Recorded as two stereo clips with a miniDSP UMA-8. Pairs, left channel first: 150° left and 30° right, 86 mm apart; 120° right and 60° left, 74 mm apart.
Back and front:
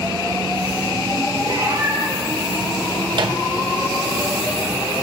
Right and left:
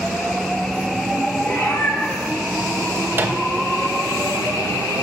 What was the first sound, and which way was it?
A cat meowing, 55° right.